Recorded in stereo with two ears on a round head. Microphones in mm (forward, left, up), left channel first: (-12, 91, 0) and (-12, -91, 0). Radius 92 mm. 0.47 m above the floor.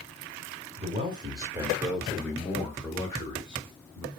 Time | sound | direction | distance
0.8 | a man speaking | 35° right (ahead or behind) | 1.6 m